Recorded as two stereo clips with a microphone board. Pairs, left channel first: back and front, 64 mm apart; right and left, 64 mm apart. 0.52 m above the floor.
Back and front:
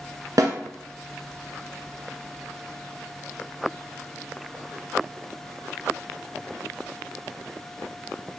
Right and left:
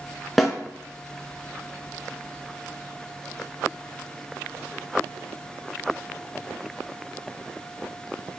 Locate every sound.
0.4 s a snare drum: straight ahead, 0.9 m